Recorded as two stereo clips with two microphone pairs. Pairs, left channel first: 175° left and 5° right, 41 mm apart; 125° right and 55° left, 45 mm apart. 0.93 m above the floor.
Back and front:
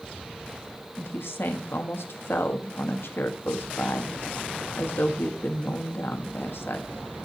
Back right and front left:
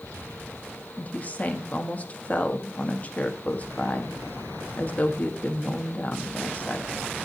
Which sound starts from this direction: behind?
A woman speaking, at 1.0 s.